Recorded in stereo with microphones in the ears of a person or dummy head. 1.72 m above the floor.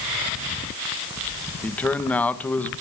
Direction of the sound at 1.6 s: 5° left (ahead or behind).